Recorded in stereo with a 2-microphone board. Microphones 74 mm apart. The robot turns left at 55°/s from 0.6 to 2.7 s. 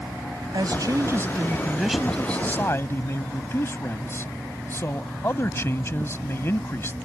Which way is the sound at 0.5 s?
100° right.